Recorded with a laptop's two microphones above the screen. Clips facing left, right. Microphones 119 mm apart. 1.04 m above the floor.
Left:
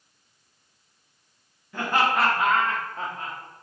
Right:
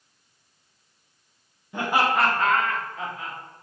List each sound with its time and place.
1.7 s laughter: 20° right (ahead or behind), 0.8 m; by 3.4 s 45° left (ahead or behind), 1.0 m